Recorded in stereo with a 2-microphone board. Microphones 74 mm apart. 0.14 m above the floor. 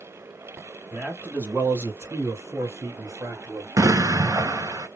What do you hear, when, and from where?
0.9 s a man speaking: 15° right (ahead or behind), 1.2 m; by 3.7 s 40° right (ahead or behind), 2.0 m
3.8 s an explosion: 45° right (ahead or behind), 0.5 m